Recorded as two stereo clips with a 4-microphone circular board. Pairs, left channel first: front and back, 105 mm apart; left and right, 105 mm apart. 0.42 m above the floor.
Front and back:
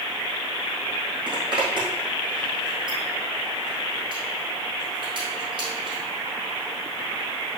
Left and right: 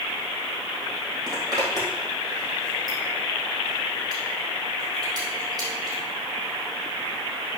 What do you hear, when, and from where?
1.3 s a zipper: 140° right, 4 m